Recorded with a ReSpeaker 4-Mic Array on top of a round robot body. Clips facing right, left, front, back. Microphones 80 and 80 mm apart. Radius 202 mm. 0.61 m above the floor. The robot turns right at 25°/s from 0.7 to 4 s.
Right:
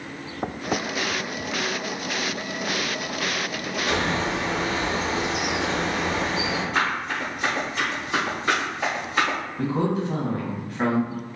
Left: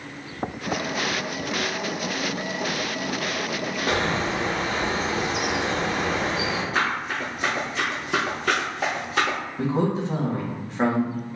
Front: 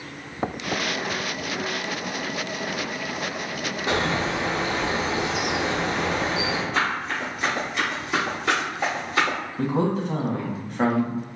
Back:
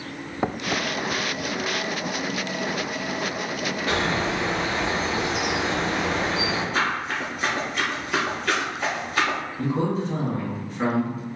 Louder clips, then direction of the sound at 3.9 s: Even, front 1 dB; 65° left.